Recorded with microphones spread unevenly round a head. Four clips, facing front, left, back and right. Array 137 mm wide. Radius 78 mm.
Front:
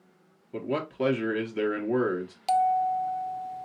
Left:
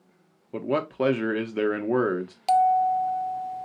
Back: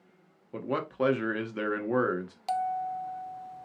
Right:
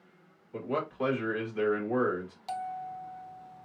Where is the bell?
70° left, 0.5 m.